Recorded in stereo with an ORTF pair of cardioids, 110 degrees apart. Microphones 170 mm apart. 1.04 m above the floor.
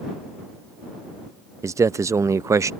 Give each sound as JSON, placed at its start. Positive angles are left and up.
{"t": 1.6, "sound": "a man speaking", "azimuth_deg": -20}